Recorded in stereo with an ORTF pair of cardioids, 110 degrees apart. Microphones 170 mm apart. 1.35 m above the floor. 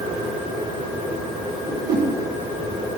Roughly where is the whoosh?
Ahead right.